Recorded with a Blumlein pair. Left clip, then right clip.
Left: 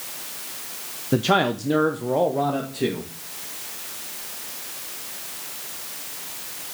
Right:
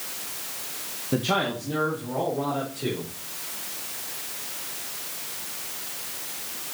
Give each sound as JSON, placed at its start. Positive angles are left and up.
{"t": 1.1, "sound": "a man speaking", "azimuth_deg": 15, "distance_m": 0.7}